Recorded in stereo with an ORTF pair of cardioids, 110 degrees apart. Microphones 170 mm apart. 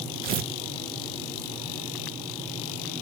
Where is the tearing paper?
60° right, 1.1 m.